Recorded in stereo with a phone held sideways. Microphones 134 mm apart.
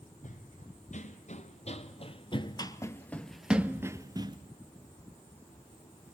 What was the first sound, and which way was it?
Running footsteps, 70° left (ahead or behind).